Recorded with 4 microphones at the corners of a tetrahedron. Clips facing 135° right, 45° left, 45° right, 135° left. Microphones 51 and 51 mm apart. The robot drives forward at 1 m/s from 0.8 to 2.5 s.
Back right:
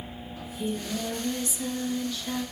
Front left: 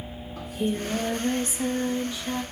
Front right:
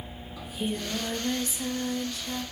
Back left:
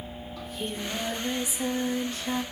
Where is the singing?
40° left, 1.6 m; by 2.4 s 125° left, 1.3 m.